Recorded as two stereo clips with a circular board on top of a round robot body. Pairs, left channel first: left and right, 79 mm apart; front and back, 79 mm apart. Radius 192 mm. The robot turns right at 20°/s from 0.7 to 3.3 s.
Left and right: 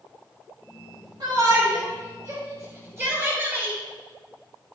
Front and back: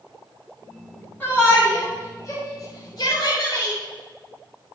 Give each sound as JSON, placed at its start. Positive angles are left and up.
{"t": 1.2, "sound": "a shout", "azimuth_deg": -65, "distance_m": 5.5}